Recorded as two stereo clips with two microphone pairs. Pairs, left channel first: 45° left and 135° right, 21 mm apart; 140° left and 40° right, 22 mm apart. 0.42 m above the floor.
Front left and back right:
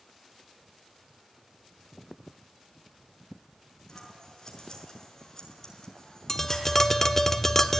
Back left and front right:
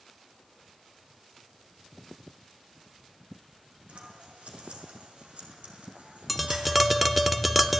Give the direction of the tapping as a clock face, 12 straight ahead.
11 o'clock.